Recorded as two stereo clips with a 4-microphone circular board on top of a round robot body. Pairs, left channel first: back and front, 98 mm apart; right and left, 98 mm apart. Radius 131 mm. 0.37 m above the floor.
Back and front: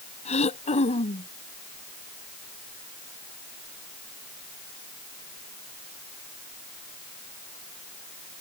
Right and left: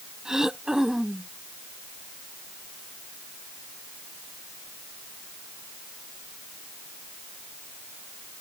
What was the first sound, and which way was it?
Throat clearing, 175° left.